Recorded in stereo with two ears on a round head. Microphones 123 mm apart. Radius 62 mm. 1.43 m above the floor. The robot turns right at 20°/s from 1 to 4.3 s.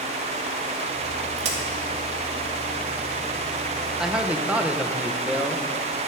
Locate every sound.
1.4 s a crack: 50° right (ahead or behind), 2 m; by 1.6 s 45° right (ahead or behind), 2 m
4.0 s a man speaking: 5° right (ahead or behind), 0.9 m; by 6.0 s 10° right (ahead or behind), 0.9 m